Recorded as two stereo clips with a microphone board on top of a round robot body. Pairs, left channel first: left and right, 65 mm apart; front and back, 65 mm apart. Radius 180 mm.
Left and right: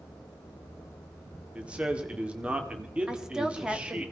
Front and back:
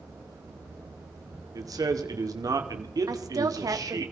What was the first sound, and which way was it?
A man speaking, 160° right.